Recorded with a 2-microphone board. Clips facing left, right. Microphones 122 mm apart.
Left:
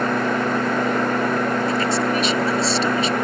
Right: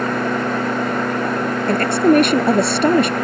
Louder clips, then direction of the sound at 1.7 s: Right 7 dB; 55° right (ahead or behind).